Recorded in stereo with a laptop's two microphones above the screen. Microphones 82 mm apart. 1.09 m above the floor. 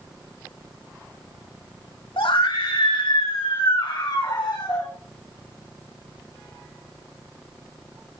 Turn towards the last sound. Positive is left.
turn(degrees=40)  # may be behind; listen again after turning